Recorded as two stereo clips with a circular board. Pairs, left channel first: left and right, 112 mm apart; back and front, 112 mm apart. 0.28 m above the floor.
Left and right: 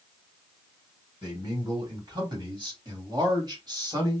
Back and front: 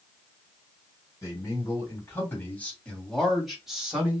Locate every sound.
1.2 s a man speaking: 130° right, 2.5 m; by 4.2 s 65° right, 1.7 m